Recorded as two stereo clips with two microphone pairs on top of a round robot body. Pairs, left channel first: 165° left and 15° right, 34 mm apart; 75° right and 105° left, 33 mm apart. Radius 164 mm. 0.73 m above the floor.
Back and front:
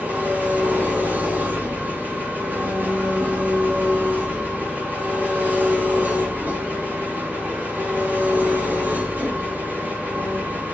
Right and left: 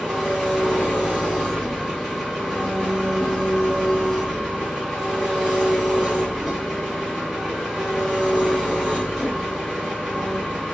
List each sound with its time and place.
0.0 s an engine running: 15° left, 6 m